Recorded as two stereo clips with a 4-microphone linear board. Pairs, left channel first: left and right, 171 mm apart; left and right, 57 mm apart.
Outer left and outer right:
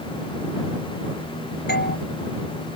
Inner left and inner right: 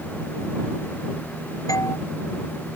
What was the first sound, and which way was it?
A doorbell, 80° left.